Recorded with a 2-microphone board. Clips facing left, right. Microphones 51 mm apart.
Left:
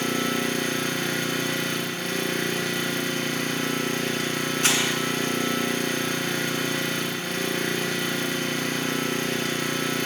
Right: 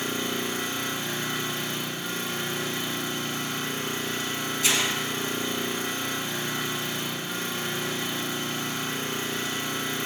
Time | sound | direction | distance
0.0 | an engine running | 75° left (ahead or behind) | 0.9 m
4.6 | crumpling | 50° left (ahead or behind) | 2 m